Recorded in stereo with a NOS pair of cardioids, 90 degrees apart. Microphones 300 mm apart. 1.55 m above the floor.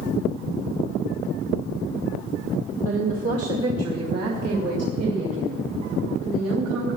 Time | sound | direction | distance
2.9 | a woman speaking | 45° right | 1.3 m